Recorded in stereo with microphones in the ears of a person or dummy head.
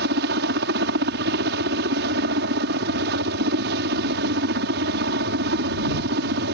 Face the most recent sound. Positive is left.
turn(degrees=-60)  # may be behind; listen again after turning